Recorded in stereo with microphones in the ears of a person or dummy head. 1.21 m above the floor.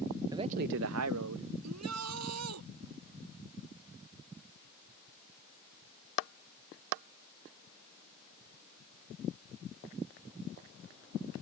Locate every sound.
0.3 s a man speaking: 20° right (ahead or behind); by 1.5 s 80° right
1.6 s a shout: 85° right